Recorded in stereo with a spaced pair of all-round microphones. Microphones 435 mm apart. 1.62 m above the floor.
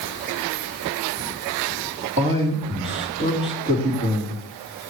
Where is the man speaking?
25° right (ahead or behind), 3 m.